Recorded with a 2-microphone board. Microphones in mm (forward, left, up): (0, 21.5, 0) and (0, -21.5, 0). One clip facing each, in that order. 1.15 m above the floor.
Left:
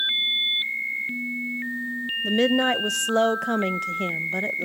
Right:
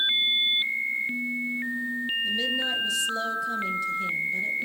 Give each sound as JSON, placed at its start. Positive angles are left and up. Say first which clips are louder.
{"t": 2.2, "sound": "a woman speaking", "louder": "left 10 dB", "side_deg": 65, "distance_m": 0.6}